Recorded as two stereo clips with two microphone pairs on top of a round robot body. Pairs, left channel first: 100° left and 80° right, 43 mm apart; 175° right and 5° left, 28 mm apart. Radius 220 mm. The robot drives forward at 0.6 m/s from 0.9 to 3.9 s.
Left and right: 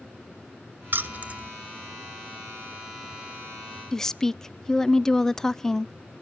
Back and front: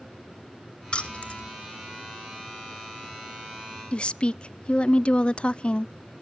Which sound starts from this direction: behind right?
Keys jangling, at 0.9 s.